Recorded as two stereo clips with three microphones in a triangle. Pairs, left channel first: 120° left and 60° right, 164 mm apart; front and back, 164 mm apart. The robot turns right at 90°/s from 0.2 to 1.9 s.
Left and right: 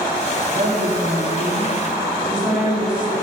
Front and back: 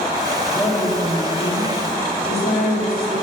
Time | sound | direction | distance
0.5 | a woman speaking | 100° right | 3.5 m